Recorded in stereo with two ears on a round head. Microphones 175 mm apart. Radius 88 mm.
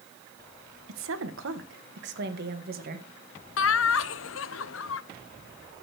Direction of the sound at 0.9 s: 80° right.